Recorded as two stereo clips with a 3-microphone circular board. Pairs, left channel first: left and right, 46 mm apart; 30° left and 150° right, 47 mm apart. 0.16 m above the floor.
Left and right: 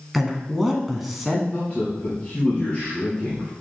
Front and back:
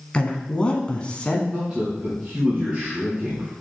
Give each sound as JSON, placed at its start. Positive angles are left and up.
{"t": 0.1, "sound": "a woman speaking", "azimuth_deg": -10, "distance_m": 1.2}
{"t": 1.5, "sound": "a man speaking", "azimuth_deg": 150, "distance_m": 3.0}